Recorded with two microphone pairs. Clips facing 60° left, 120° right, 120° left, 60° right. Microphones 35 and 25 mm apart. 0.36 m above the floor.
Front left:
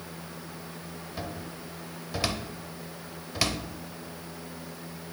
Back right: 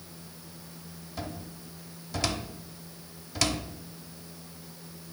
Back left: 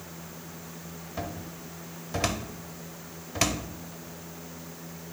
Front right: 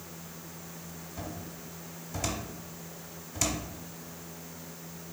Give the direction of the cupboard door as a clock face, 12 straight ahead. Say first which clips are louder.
Even, back left 5 dB; 8 o'clock.